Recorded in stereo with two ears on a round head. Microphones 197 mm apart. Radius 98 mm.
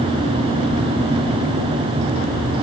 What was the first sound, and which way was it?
Only background noise.